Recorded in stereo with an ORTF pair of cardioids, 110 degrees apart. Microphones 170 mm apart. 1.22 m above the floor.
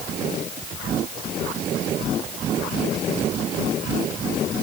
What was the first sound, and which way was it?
Only background noise.